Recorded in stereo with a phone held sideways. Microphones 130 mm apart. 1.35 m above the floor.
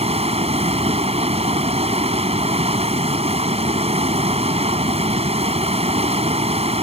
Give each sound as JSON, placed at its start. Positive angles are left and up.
{"t": 0.0, "sound": "running water", "side_deg": -45}